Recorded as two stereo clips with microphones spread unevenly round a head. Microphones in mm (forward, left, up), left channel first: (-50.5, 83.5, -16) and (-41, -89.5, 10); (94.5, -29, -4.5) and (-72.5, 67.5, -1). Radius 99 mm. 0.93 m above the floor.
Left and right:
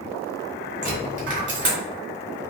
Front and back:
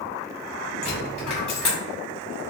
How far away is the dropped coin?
About 1.2 m.